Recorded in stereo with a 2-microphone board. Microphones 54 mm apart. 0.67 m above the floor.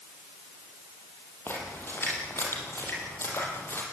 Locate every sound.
1.5 s a splash: 45° left (ahead or behind), 6 m